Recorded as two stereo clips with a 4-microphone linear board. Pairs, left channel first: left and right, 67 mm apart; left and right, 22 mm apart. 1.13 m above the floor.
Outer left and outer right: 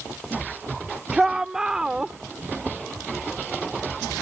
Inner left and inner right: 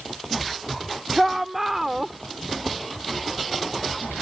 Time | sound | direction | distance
1.1 | a shout | 10° right (ahead or behind) | ?